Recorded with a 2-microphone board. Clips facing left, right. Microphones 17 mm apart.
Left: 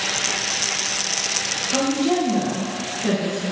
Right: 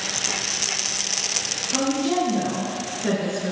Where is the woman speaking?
30° left (ahead or behind), 2 m; by 3.5 s 25° right (ahead or behind), 1.4 m.